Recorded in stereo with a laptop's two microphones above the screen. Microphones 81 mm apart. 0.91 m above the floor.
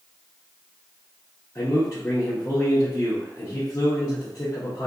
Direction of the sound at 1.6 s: 45° left (ahead or behind).